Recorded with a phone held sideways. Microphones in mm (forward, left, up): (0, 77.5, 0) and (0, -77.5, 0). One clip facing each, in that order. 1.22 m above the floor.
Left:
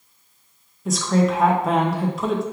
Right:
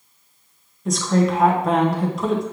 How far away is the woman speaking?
About 0.5 m.